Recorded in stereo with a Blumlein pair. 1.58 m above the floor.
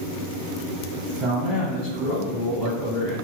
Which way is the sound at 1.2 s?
10° right.